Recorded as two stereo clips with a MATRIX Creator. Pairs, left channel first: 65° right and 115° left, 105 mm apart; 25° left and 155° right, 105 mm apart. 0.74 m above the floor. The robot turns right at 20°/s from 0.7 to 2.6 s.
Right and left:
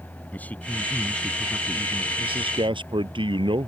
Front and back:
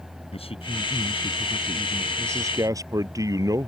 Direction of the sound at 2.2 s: 140° left.